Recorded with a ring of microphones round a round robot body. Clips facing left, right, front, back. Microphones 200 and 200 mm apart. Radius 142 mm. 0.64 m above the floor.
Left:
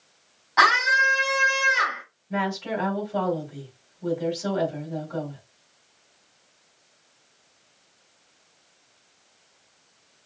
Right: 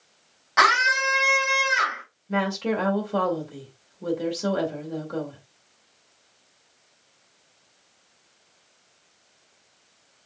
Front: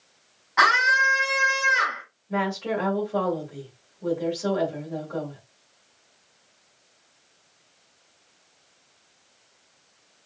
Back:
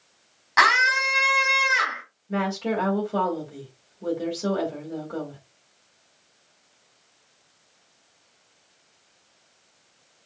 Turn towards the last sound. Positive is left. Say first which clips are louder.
# right 3 dB, back 1 dB
turn(degrees=-120)